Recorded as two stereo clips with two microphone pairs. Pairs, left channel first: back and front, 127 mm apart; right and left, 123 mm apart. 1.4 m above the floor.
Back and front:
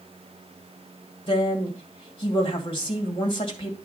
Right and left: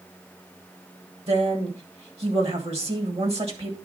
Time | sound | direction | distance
1.3 | a woman speaking | 130° left | 2 m